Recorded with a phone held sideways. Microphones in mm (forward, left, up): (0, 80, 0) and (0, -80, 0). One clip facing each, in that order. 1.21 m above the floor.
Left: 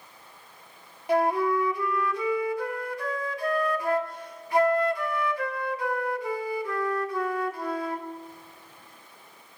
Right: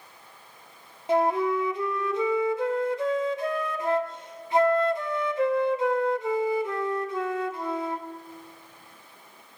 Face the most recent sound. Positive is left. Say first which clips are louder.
# even
turn(degrees=-25)  # may be behind; listen again after turning